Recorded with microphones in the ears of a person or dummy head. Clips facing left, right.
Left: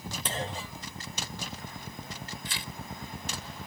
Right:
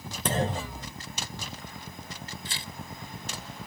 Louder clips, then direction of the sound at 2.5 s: Left 1 dB; 35° right (ahead or behind).